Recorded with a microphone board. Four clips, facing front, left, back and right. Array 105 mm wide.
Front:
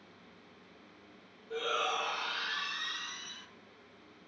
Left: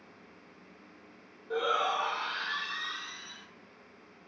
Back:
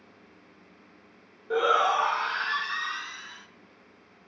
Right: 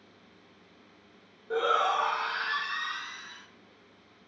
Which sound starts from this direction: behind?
A shout, at 1.5 s.